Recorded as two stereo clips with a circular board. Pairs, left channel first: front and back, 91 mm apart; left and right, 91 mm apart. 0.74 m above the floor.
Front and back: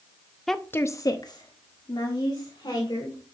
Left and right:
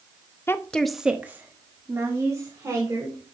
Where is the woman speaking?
85° left, 0.6 m; by 3.2 s 35° right, 2.5 m.